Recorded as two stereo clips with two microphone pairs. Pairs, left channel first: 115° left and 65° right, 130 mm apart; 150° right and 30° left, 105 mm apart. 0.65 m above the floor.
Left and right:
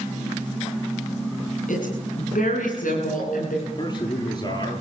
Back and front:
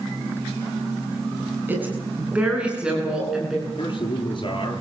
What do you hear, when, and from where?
1.7 s a woman speaking: 105° left, 8 m; by 3.5 s 115° left, 10 m
3.6 s a man speaking: 165° left, 10 m